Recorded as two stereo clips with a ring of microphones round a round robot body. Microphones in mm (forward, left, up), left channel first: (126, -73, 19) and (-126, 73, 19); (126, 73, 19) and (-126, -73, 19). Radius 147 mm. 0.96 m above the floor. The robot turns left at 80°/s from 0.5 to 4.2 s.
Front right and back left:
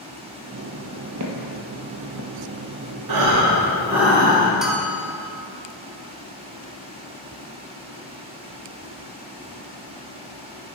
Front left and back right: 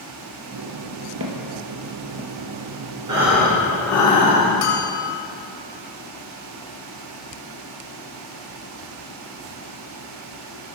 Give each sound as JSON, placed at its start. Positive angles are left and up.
{"t": 1.2, "sound": "footsteps", "azimuth_deg": 175, "distance_m": 1.6}
{"t": 3.1, "sound": "breathing", "azimuth_deg": 135, "distance_m": 2.5}
{"t": 4.6, "sound": "a bell", "azimuth_deg": 60, "distance_m": 1.5}